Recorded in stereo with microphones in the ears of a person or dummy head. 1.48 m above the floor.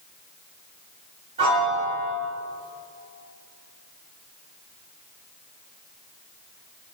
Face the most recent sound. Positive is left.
turn(degrees=-35)  # may be behind; listen again after turning